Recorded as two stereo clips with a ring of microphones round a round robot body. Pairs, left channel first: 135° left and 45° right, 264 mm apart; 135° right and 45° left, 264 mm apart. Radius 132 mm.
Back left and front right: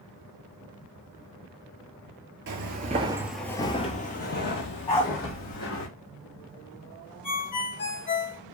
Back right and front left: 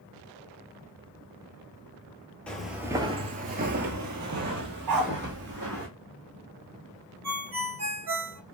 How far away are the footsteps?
About 0.6 m.